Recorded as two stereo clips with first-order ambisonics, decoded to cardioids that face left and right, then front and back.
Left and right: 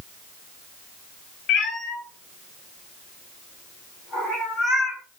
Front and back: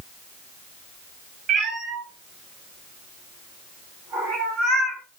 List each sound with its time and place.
1.5 s a cat meowing: 140° left, 1.3 m; by 5.0 s 160° left, 3.5 m